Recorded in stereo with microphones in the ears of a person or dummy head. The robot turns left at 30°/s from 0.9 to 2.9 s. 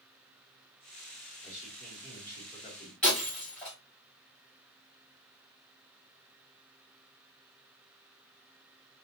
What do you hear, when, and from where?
1.4 s a man speaking: 170° right, 2 m; by 2.9 s 145° left, 2 m
3.0 s breaking glass: 5° left (ahead or behind), 2.5 m